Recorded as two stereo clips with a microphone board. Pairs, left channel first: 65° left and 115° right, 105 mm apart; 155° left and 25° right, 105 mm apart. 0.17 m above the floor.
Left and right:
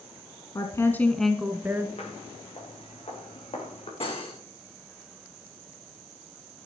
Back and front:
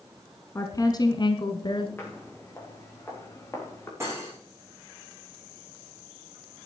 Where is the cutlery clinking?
40° left, 6.5 m.